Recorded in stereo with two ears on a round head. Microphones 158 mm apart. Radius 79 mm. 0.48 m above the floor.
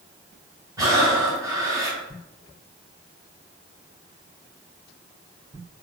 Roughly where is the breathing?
Centre.